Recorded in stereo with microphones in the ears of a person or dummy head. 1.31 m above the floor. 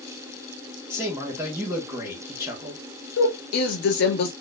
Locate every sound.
0.9 s a man speaking: 15° right (ahead or behind), 1.6 m
3.2 s a woman speaking: 65° left (ahead or behind), 2 m